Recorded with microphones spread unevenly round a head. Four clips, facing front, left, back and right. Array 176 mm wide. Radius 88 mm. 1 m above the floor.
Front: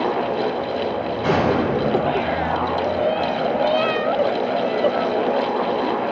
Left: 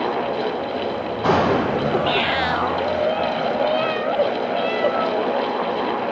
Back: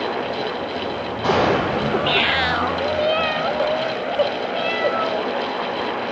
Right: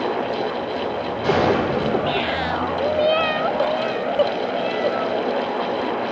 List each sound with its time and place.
1.2 s a gunshot: 115° left, 9.5 m